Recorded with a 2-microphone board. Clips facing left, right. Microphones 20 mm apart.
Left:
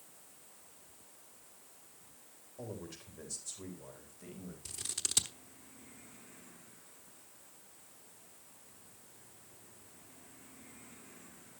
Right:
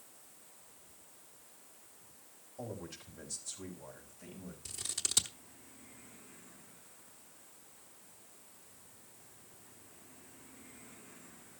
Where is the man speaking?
5° left (ahead or behind), 3.5 m.